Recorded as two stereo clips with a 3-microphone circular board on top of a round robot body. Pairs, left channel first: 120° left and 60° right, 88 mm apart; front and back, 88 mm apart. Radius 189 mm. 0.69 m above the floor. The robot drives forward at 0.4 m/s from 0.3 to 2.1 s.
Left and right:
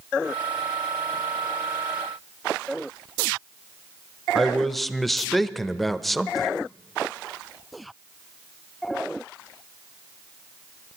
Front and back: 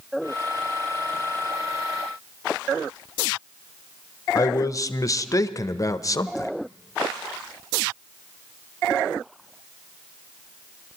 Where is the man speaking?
35° left, 0.8 m.